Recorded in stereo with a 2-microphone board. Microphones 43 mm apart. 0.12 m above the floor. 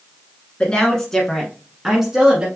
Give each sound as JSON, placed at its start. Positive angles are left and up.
{"t": 0.6, "sound": "a woman speaking", "side_deg": 25, "distance_m": 1.4}